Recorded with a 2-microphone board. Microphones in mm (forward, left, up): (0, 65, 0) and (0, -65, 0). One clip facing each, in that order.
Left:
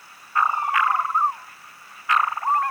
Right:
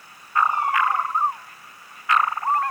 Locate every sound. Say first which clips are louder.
0.5 s a cat meowing: even; 65° right (ahead or behind), 7.5 m